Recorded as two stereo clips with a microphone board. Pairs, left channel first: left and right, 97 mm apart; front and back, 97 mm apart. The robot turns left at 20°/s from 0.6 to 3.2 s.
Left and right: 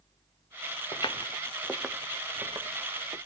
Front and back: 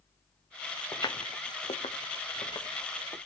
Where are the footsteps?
60° left, 0.8 m; by 3.2 s 65° right, 1.7 m.